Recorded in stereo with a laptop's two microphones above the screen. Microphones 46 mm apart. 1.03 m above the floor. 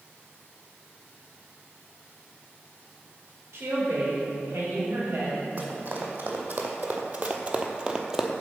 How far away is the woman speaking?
About 4 m.